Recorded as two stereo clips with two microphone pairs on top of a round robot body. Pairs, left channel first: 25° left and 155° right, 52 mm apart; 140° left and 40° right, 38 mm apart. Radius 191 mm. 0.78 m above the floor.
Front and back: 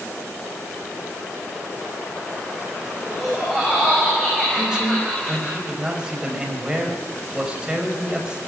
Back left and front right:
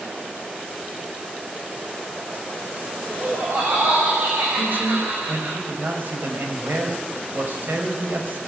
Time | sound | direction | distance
3.1 | laughter | 65° right | 5.5 m
4.5 | a man speaking | 75° right | 5.5 m